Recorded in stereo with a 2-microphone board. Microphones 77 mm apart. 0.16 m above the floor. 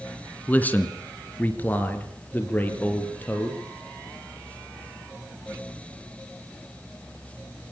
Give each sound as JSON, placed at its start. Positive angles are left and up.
{"t": 0.5, "sound": "a man speaking", "side_deg": 20, "distance_m": 2.0}